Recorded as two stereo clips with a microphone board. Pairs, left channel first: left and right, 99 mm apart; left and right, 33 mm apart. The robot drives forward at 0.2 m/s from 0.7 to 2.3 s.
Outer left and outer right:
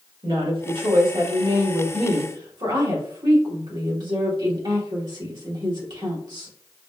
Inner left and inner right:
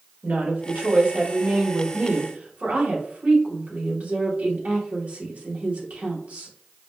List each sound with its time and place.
0.2 s a woman speaking: 55° right (ahead or behind), 1.6 m; by 6.5 s 45° right (ahead or behind), 1.8 m